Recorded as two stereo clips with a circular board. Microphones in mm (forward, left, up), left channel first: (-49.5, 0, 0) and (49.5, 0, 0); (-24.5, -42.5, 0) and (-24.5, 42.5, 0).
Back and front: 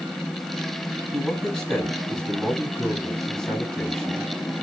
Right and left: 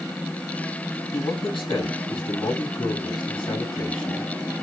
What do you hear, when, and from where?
1.1 s a man speaking: 95° right, 4.5 m